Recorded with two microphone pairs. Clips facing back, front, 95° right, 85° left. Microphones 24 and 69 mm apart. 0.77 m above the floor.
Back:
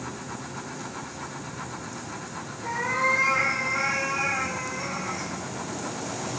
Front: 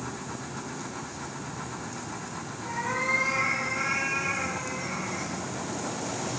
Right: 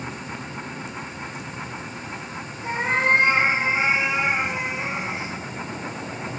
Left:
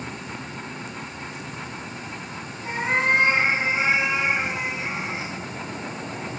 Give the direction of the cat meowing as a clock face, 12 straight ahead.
5 o'clock.